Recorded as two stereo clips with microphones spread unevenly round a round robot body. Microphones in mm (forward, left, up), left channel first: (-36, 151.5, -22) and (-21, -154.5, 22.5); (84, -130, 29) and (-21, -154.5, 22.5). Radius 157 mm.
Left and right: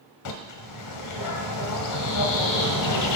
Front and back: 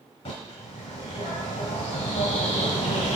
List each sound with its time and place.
0.2 s a bird: 65° left, 1.3 m